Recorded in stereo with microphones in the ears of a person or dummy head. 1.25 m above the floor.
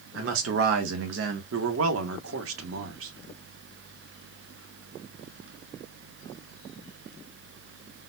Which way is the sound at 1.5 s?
85° right.